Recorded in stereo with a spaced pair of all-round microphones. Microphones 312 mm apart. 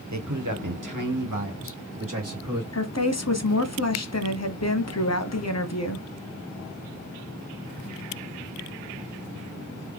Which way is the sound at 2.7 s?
55° left (ahead or behind).